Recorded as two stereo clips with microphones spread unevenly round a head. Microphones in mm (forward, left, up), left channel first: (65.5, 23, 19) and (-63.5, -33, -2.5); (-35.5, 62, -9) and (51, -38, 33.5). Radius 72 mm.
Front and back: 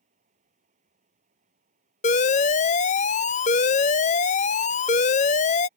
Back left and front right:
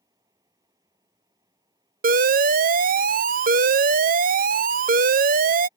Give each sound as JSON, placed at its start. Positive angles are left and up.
{"t": 0.0, "sound": "a fan", "azimuth_deg": -115}
{"t": 2.0, "sound": "an alarm", "azimuth_deg": -20}